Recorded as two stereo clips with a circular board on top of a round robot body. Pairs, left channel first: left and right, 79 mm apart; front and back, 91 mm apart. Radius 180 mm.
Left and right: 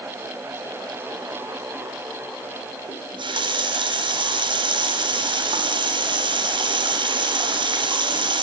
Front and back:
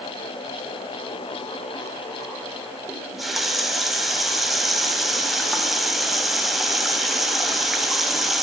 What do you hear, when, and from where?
2.9 s a running tap: 90° right, 2.5 m